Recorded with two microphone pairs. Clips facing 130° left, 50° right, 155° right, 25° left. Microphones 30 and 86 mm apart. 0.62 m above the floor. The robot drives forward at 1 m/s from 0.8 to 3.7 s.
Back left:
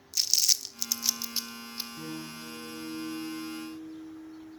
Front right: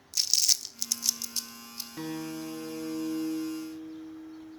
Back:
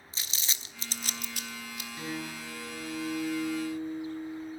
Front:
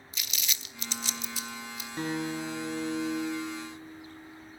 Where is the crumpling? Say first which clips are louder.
Even, front 1 dB; 145° right, 0.6 m; by 1.9 s 170° right, 1.4 m.